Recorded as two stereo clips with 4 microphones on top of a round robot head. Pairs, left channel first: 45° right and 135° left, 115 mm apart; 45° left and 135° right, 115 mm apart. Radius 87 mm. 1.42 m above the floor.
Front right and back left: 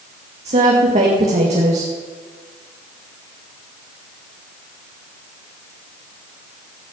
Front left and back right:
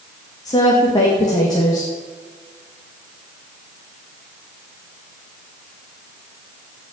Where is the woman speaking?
105° left, 2.5 m.